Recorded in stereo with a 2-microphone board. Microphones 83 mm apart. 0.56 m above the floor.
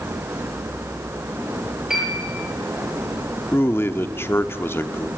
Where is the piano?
10° right (ahead or behind), 10 m.